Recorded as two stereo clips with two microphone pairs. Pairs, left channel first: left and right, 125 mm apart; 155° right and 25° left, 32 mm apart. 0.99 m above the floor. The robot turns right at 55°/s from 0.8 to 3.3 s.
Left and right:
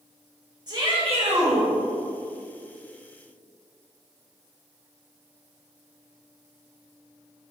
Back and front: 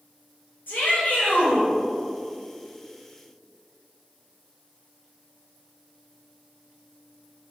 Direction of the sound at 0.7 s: 145° right.